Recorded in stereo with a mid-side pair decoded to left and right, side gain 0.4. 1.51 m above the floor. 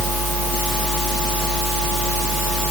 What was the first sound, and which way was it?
Only background noise.